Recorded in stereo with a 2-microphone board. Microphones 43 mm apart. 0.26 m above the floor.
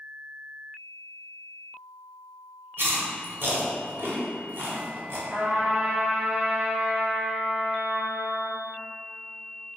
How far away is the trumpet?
About 1.5 m.